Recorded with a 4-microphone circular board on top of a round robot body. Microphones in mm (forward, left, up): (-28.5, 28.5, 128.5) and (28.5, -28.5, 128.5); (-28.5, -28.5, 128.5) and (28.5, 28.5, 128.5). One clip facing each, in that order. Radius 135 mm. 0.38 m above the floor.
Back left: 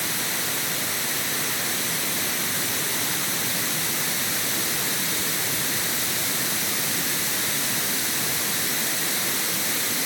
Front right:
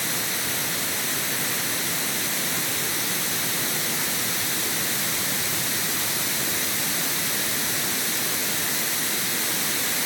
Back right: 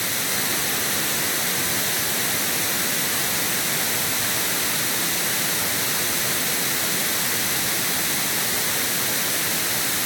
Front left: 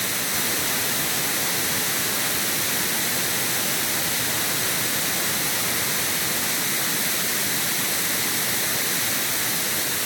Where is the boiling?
I don't hear boiling.